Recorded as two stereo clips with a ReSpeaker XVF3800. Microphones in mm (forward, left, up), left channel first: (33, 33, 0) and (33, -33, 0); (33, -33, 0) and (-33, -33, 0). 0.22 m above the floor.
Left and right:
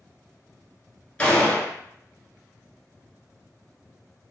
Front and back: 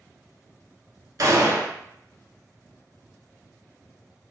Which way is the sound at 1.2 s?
160° left.